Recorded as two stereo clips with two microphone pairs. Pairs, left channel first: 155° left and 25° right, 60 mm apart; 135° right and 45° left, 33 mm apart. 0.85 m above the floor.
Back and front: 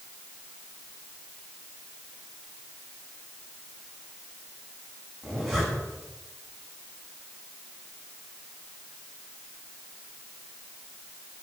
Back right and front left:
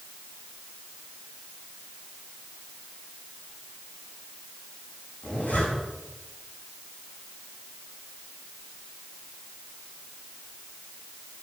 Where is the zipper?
110° right, 8 m.